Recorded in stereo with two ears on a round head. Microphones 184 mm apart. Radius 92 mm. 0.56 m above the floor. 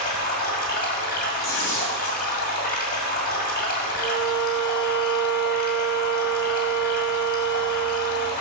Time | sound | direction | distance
0.0 | running water | 45° left (ahead or behind) | 1.9 m
1.4 | tearing paper | 60° left (ahead or behind) | 3.5 m
4.0 | a violin | 75° left (ahead or behind) | 2.0 m